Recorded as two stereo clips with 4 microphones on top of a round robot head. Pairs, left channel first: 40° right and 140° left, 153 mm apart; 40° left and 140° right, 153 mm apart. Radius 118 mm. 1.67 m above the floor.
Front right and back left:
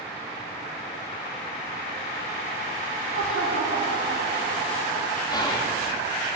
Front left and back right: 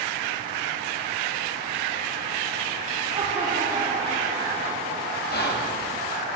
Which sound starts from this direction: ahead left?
Whispering, at 5.3 s.